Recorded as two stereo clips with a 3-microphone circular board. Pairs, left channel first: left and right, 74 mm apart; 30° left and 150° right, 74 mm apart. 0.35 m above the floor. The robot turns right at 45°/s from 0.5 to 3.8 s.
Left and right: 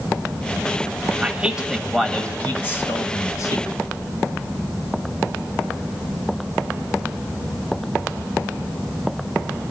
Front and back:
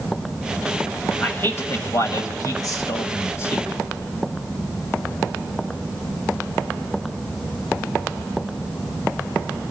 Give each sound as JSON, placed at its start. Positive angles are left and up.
{"t": 1.2, "sound": "a man speaking", "azimuth_deg": -30, "distance_m": 1.5}